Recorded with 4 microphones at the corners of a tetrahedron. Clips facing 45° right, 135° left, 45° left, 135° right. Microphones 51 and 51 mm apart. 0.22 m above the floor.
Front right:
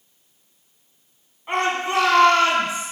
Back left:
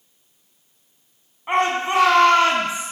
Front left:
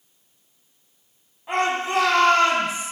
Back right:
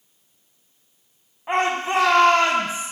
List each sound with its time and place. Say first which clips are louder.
1.5 s a shout: back left 3 dB, back right 1 dB; 170° right, 1.7 m